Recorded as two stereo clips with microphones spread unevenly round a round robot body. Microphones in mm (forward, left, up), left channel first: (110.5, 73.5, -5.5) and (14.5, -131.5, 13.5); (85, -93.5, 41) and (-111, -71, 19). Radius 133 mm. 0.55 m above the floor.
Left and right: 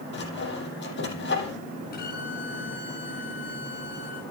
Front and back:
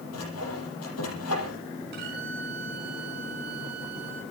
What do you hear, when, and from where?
0.1 s sawing: 25° left, 7.5 m
1.9 s a violin: 125° left, 5 m